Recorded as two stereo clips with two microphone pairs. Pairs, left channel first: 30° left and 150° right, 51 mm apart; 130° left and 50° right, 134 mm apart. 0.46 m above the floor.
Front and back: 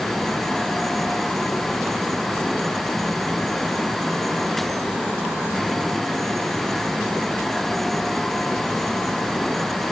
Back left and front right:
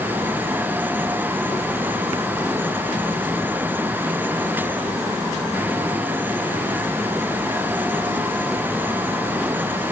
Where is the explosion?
No explosion in this recording.